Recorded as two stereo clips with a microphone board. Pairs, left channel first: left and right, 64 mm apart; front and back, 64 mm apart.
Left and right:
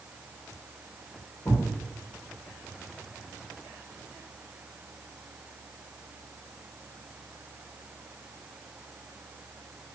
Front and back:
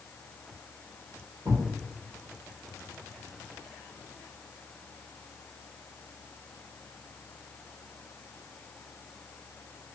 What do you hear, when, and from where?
1.4 s a thud: 155° left, 1.1 m